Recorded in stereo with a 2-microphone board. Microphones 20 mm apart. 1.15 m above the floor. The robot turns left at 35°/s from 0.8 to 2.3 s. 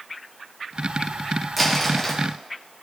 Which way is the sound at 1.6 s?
Centre (ahead or behind).